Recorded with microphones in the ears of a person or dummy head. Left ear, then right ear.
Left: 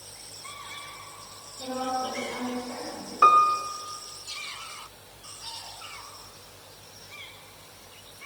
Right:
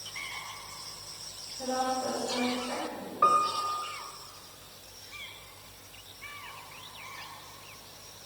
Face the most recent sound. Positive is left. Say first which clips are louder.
# left 6 dB
turn(degrees=75)  # may be behind; listen again after turning